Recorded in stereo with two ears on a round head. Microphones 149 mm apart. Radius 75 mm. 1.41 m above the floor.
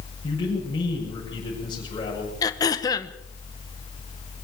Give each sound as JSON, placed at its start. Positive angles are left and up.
{"t": 0.2, "sound": "a man speaking", "side_deg": 30, "distance_m": 6.5}
{"t": 2.4, "sound": "throat clearing", "side_deg": 25, "distance_m": 1.3}